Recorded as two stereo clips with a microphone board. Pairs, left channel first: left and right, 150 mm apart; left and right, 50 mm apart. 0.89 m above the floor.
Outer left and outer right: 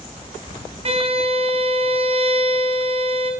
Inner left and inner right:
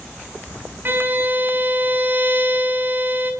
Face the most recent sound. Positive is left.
turn(degrees=-40)  # may be behind; listen again after turning